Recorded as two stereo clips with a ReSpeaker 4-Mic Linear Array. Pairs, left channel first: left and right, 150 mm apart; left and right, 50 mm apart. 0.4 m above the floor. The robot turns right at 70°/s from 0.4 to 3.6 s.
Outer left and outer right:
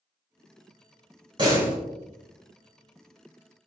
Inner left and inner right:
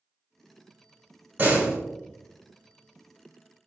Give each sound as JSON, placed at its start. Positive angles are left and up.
{"t": 1.4, "sound": "a door slam", "side_deg": -30, "distance_m": 3.5}